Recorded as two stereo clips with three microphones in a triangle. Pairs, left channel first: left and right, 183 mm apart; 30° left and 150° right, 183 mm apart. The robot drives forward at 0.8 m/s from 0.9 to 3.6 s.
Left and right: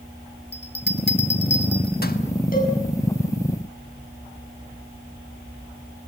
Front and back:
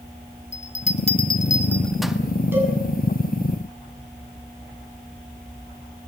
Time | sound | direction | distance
0.5 | a bell | 75° left | 1.2 m
2.5 | a cowbell | 130° left | 7.5 m